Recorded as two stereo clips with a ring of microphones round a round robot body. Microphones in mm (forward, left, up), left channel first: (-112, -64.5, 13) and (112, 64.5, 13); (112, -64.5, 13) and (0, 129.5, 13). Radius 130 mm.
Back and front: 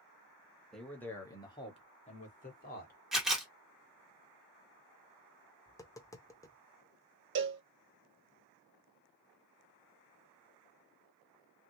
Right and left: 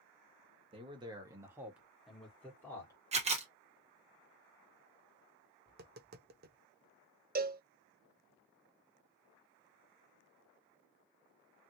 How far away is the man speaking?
About 1.4 m.